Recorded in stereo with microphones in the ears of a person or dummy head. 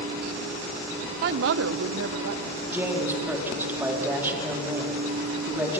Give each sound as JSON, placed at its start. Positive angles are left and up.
{"t": 1.2, "sound": "a woman speaking", "side_deg": -45, "distance_m": 0.5}
{"t": 2.7, "sound": "a woman speaking", "side_deg": -5, "distance_m": 3.5}